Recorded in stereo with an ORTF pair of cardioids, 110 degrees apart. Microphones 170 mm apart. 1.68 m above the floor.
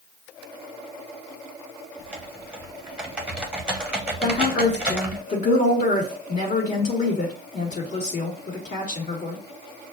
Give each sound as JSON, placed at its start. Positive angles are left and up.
{"t": 2.0, "sound": "typing on a keyboard", "azimuth_deg": -5, "distance_m": 1.0}
{"t": 4.2, "sound": "a woman speaking", "azimuth_deg": 50, "distance_m": 2.0}